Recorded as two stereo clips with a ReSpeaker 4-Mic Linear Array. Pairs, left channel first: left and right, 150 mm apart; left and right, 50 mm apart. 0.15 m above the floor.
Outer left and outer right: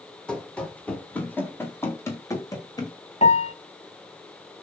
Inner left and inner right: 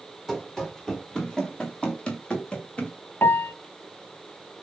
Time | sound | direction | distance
0.3 | running footsteps | 5° left (ahead or behind) | 4 m
3.2 | a piano | 45° left (ahead or behind) | 0.5 m